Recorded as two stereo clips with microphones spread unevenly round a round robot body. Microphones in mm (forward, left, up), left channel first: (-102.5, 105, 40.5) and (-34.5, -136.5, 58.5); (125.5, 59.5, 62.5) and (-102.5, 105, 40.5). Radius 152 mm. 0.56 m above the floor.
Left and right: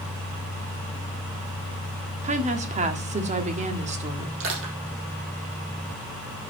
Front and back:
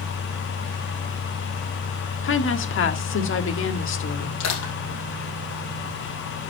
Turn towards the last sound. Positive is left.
turn(degrees=-25)